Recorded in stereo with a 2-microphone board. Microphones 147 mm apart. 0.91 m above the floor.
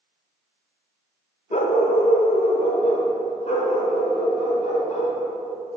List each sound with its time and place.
1.5 s a dog barking: 50° left (ahead or behind), 0.5 m; by 5.2 s 60° left (ahead or behind), 3 m